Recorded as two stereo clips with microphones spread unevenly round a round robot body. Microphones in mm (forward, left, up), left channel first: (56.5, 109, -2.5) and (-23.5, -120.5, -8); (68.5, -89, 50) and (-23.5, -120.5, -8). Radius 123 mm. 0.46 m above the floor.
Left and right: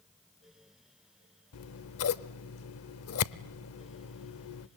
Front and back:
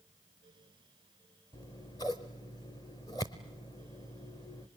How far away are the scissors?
About 0.8 m.